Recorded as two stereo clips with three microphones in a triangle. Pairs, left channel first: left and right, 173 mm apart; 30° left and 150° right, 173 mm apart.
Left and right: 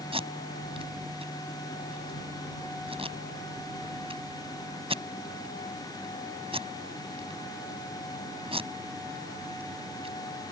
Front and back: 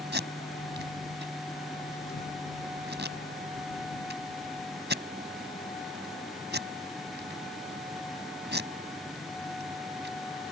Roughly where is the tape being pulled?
Behind right.